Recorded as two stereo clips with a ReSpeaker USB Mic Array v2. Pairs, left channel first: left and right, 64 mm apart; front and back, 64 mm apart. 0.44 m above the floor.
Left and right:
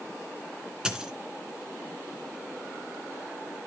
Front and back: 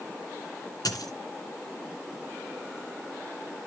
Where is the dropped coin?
15° right, 1.7 m.